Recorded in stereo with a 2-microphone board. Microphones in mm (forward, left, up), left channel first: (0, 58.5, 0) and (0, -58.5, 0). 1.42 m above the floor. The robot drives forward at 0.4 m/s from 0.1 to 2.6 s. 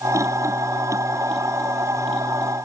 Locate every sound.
Only background noise.